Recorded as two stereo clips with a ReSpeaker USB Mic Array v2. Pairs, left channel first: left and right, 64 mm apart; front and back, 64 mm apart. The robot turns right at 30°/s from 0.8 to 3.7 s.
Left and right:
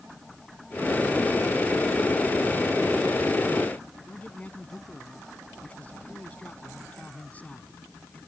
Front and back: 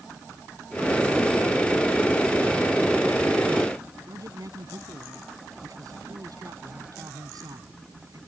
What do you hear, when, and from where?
4.1 s a man speaking: 155° left